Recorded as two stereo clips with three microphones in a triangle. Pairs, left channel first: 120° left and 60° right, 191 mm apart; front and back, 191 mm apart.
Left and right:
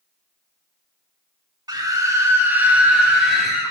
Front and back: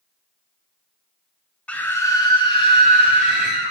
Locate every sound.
1.7 s a scream: 70° right, 1.0 m; by 3.7 s 30° left, 1.4 m